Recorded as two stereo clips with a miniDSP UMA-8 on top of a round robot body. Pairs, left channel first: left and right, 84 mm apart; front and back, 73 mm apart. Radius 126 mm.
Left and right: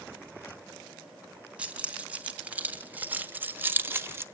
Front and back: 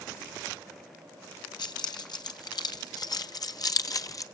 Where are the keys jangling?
15° right, 3 m; by 4.2 s 35° right, 1.4 m.